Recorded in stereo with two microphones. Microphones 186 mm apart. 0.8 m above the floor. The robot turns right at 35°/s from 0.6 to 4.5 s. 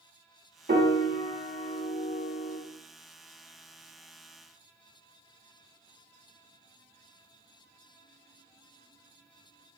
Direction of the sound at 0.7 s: 60° right (ahead or behind).